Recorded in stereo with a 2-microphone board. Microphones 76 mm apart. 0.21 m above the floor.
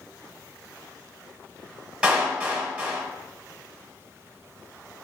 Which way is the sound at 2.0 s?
10° right (ahead or behind).